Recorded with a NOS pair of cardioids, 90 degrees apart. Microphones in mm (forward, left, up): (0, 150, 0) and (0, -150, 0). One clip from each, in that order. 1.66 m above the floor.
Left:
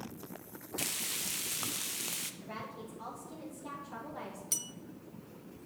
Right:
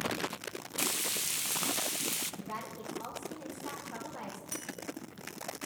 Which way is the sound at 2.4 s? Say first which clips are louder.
Right 3 dB; 15° right.